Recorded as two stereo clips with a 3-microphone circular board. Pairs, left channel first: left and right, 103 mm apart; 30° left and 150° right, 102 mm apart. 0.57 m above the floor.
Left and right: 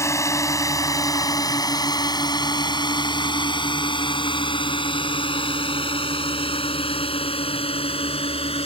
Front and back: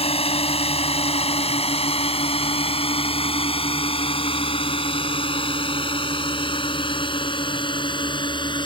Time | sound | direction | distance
0.0 | a drone | 30° left | ?